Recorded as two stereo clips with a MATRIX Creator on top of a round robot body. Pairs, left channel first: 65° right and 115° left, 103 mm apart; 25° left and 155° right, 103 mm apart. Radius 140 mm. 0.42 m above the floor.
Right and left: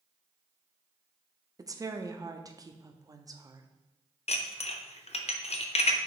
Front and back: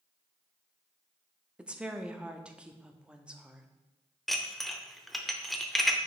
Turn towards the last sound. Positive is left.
turn(degrees=-65)